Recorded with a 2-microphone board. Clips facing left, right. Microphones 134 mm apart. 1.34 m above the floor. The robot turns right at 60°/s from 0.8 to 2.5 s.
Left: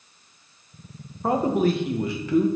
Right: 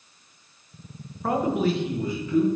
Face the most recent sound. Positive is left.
turn(degrees=95)